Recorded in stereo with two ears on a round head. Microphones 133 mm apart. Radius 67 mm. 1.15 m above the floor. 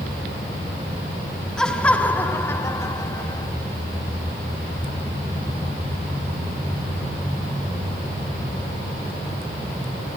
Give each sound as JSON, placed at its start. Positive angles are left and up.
{"t": 1.6, "sound": "laughter", "side_deg": 5, "distance_m": 2.0}